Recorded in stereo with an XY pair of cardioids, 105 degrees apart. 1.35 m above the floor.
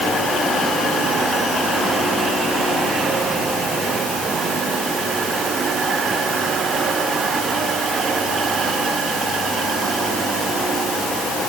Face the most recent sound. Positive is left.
No sound to turn to.